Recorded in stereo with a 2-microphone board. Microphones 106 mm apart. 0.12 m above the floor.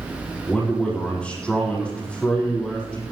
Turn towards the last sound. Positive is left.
turn(degrees=10)  # may be behind; listen again after turning